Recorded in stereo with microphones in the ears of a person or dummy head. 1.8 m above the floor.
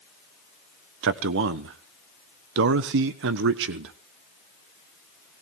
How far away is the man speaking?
About 1.1 m.